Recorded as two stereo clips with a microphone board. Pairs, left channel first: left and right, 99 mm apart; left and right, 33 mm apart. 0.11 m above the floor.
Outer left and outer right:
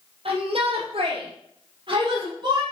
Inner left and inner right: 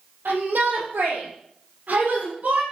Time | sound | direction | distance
0.2 | a shout | 65° right (ahead or behind) | 4 m